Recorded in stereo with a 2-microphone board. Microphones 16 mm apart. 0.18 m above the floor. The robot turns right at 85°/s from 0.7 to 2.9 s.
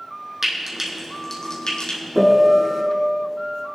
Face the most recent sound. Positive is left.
turn(degrees=-125)